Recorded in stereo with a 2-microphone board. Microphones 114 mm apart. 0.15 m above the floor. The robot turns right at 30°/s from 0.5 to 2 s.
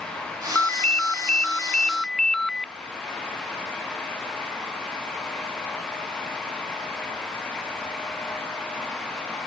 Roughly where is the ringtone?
Centre.